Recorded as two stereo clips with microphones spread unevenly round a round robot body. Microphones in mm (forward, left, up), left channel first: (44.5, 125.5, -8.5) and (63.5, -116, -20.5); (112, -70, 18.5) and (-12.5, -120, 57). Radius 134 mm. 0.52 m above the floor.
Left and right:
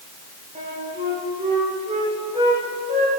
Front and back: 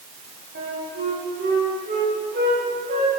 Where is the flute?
155° right, 10 m.